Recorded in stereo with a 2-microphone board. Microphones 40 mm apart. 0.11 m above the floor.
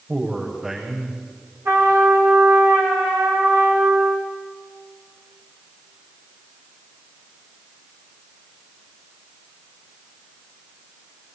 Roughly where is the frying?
I don't hear frying.